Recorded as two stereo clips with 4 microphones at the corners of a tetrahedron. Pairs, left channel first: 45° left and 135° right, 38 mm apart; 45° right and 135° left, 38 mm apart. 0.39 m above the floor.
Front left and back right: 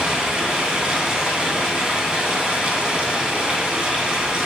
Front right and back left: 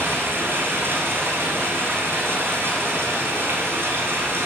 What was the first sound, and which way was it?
Running water, 160° left.